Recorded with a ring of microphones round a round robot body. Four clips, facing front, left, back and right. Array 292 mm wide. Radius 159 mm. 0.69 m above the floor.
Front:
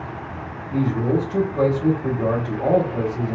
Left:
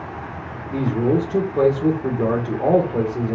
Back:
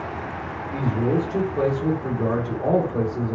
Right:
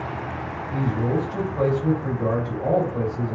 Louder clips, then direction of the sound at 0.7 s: Left 5 dB, front 2 dB; 95° left.